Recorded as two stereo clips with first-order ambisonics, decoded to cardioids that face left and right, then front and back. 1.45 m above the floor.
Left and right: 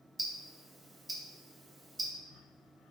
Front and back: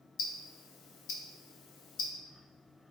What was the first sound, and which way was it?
Ticking, 10° right.